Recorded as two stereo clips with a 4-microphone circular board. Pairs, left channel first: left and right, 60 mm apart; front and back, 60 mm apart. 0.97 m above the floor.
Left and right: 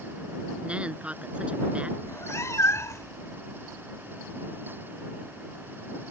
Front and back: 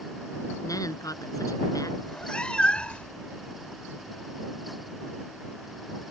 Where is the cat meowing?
70° left.